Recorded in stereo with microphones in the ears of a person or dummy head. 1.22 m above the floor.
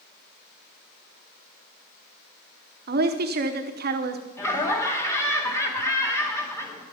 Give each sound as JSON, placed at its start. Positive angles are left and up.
{"t": 2.9, "sound": "a woman speaking", "side_deg": -45, "distance_m": 0.8}
{"t": 4.4, "sound": "laughter", "side_deg": 15, "distance_m": 1.9}